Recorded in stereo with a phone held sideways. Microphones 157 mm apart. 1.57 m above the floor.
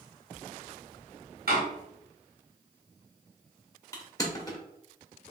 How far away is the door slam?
About 1.8 m.